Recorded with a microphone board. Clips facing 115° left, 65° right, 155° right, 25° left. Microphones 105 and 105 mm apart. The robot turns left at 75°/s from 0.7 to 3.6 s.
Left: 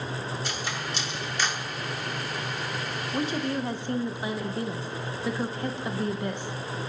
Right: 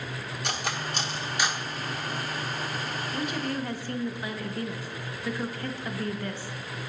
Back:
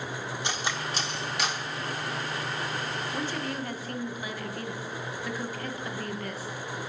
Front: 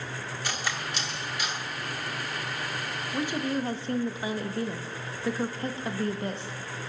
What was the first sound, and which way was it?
Cutlery clinking, 90° right.